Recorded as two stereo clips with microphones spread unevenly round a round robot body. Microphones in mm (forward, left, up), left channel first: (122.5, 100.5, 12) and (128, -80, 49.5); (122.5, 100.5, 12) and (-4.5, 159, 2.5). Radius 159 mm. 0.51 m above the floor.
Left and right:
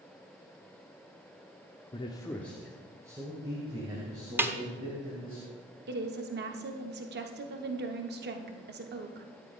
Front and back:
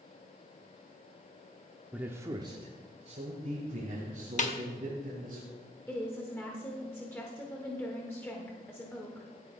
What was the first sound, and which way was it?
A man speaking, 80° left.